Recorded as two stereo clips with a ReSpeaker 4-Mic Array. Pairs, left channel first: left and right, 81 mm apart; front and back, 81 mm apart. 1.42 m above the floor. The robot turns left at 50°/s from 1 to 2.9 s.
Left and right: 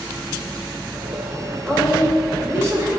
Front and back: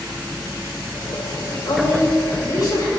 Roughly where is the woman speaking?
Ahead.